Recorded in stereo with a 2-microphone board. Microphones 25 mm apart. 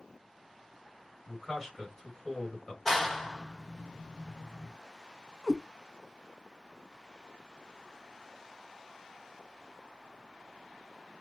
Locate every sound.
1.3 s a man speaking: 20° left (ahead or behind), 1.7 m
2.9 s a clap: 5° left (ahead or behind), 0.9 m
5.4 s a cat meowing: centre (ahead or behind), 0.6 m